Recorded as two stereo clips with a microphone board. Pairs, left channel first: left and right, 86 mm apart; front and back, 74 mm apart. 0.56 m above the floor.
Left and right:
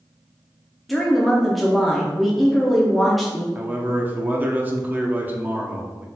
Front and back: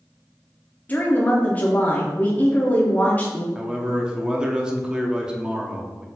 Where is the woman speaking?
Straight ahead, 0.7 m.